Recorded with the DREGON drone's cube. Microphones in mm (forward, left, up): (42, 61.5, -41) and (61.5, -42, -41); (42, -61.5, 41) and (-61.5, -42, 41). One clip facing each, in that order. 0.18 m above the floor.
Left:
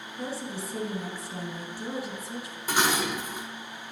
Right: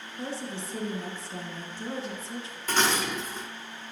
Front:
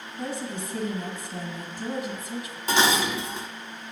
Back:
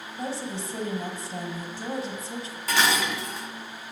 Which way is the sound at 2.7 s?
35° left.